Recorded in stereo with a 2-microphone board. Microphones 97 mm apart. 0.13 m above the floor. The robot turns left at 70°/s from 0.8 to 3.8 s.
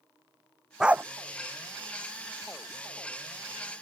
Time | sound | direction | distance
0.8 | a dog barking | 5° right (ahead or behind) | ?